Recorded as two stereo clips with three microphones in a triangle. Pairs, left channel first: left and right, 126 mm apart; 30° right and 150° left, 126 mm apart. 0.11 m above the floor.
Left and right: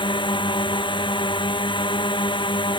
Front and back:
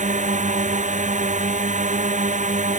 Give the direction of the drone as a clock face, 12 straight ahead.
7 o'clock.